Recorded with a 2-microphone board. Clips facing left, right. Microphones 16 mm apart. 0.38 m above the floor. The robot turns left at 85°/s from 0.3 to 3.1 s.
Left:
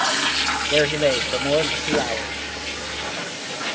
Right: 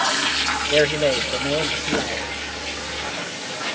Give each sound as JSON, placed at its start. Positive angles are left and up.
{"t": 0.7, "sound": "a man speaking", "azimuth_deg": -165, "distance_m": 1.0}